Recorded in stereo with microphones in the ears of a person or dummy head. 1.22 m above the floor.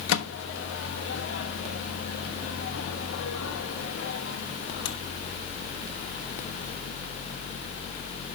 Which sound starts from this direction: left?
A microwave, at 0.1 s.